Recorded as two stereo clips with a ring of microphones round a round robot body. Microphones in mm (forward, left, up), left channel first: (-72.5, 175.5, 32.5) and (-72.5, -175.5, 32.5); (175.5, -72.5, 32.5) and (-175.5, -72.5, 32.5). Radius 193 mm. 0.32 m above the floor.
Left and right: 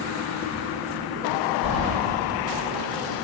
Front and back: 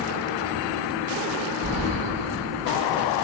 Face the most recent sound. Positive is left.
turn(degrees=-80)